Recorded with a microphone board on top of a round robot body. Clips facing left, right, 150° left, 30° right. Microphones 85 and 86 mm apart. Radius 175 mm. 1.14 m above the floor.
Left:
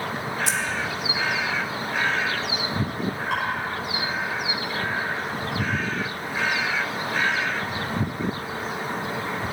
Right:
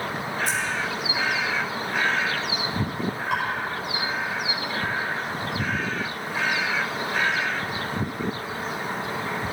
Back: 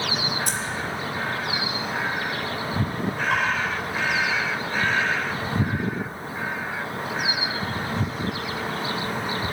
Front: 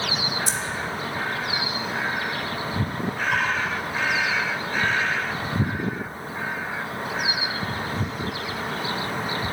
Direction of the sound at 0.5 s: 110° left.